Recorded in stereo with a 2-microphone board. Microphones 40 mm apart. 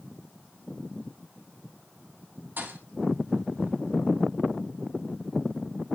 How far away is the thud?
About 2 m.